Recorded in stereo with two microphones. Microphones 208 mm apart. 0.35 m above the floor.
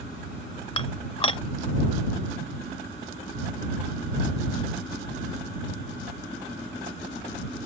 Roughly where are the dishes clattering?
Left.